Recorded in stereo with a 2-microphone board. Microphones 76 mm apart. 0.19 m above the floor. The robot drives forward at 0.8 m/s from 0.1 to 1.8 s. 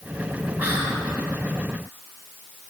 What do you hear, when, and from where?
0.6 s whispering: 20° right (ahead or behind), 1.7 m